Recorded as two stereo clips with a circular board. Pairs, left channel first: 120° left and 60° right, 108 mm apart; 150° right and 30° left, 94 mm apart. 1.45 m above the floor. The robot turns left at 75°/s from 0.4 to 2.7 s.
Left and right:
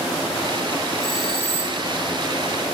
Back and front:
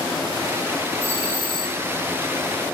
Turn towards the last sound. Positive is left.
turn(degrees=-90)